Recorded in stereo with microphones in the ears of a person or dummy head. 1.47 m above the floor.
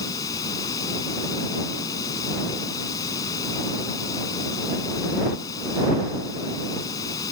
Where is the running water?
25° left (ahead or behind).